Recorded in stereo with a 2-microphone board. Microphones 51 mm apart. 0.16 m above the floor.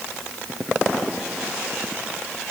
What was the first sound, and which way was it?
Only background noise.